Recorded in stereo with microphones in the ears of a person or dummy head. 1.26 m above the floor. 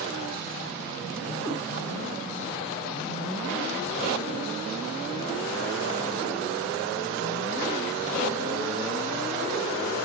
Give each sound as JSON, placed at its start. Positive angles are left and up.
{"t": 1.4, "sound": "a cat meowing", "side_deg": 5, "distance_m": 1.5}